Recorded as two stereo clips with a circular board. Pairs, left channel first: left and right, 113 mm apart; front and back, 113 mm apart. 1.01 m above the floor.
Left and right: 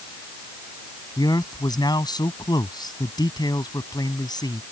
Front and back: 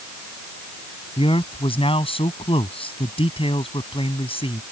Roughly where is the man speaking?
Ahead left.